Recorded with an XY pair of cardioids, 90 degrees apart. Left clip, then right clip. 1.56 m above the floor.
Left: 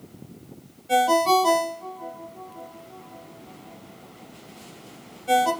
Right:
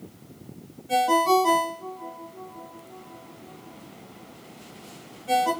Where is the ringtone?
40° left, 1.3 m.